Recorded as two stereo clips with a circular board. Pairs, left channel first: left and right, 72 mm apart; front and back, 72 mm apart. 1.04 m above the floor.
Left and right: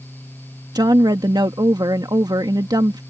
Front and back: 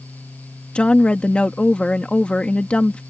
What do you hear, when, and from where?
0.8 s a woman speaking: 75° right